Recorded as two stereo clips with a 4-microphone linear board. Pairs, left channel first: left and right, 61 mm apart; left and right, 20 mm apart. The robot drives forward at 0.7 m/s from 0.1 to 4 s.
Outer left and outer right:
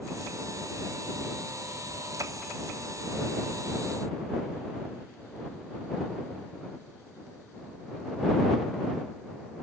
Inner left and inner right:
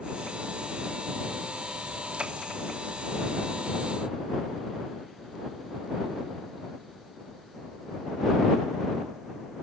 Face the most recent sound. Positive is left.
No sound to turn to.